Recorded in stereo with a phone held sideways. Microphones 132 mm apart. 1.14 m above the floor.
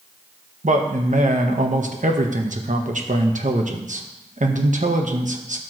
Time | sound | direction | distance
0.6 | a man speaking | 70° right (ahead or behind) | 1.1 m